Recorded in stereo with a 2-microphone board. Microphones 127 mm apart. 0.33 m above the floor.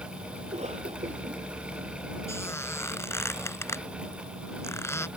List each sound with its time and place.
0.4 s a cough: 60° right (ahead or behind)
2.3 s a squeak: 20° left (ahead or behind)